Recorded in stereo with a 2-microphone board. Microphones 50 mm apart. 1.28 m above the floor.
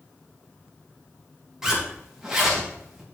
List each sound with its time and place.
1.6 s a zipper: 10° right (ahead or behind), 1.9 m